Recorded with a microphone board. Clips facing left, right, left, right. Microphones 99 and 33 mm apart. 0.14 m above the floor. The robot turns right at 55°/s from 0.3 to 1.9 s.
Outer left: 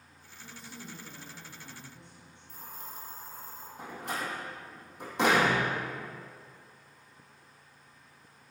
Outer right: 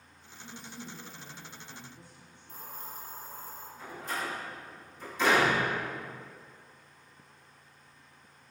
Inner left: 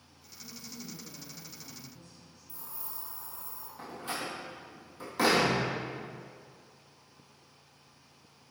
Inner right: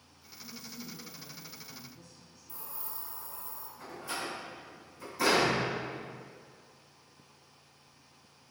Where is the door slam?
75° left (ahead or behind), 3.5 m.